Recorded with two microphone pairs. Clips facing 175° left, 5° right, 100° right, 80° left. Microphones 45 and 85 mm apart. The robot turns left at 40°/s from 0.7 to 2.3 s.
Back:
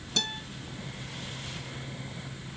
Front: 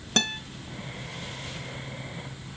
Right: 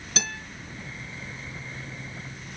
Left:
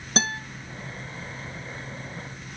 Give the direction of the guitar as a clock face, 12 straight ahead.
11 o'clock.